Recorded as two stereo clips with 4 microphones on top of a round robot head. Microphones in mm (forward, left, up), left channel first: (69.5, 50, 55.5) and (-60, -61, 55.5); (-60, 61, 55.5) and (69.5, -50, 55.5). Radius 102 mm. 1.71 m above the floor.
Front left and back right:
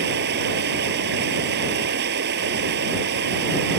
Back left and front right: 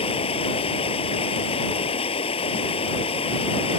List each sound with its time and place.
0.0 s running water: 160° right